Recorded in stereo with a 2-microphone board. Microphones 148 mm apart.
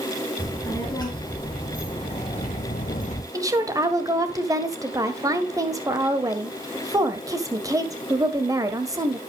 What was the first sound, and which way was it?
A child speaking, 25° left (ahead or behind).